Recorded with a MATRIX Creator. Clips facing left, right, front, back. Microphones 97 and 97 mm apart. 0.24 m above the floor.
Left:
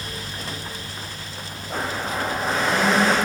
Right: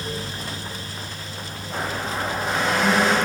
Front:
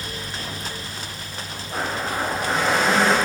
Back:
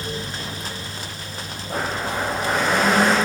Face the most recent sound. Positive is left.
turn(degrees=140)